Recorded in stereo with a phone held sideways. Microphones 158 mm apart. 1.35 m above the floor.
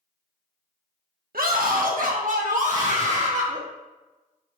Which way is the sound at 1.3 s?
80° right.